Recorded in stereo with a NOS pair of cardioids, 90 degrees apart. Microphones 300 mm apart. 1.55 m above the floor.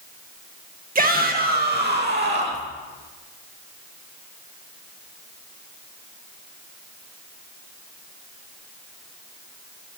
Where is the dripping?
I don't hear dripping.